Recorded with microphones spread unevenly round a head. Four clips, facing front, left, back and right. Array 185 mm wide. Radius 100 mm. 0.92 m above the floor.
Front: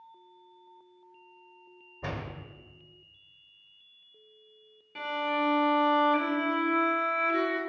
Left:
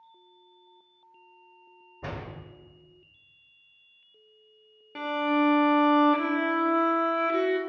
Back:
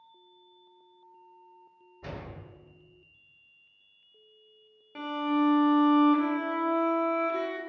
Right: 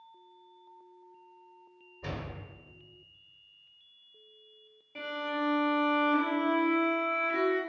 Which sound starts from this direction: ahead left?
A door slam, at 2.0 s.